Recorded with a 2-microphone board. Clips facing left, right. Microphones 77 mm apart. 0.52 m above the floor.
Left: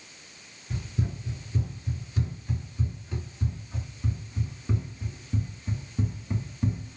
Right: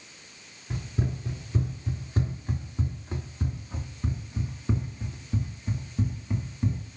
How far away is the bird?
No bird in this recording.